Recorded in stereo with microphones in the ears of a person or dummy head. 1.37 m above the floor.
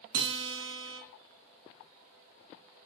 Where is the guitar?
65° right (ahead or behind), 0.6 m.